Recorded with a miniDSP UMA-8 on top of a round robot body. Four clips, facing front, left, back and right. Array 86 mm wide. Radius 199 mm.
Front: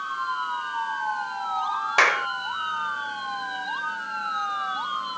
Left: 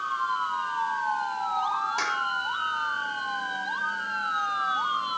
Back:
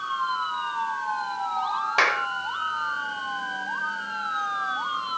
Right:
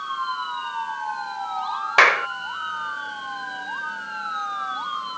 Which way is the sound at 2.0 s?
80° right.